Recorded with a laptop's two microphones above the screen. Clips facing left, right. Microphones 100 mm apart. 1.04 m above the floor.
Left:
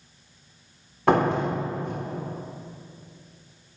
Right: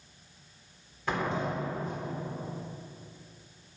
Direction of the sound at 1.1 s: 65° left (ahead or behind).